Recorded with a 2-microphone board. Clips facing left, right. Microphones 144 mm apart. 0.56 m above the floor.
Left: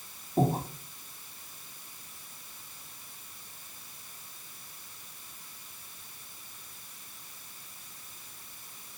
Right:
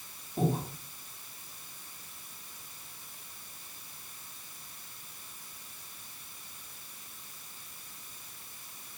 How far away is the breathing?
About 3.5 m.